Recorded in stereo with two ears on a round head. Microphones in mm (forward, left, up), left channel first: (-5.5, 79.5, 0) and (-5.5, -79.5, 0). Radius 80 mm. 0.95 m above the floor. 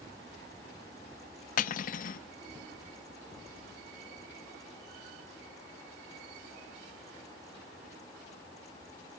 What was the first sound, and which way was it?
Cutlery clinking, 50° left (ahead or behind).